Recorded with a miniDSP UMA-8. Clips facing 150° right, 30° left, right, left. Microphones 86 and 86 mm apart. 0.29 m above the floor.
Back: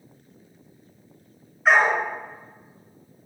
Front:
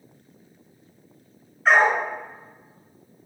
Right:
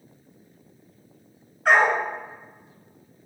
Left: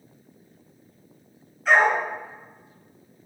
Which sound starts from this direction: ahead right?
A dog barking, at 1.6 s.